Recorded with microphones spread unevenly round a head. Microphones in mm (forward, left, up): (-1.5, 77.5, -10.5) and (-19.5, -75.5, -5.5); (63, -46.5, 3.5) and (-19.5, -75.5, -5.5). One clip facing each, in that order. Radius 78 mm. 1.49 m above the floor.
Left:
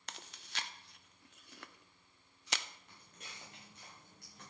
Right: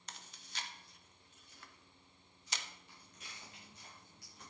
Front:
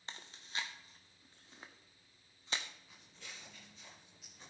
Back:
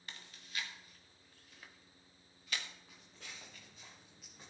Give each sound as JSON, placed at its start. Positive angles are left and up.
{"t": 0.1, "sound": "chewing", "azimuth_deg": 80, "distance_m": 0.7}
{"t": 2.9, "sound": "footsteps", "azimuth_deg": 125, "distance_m": 5.5}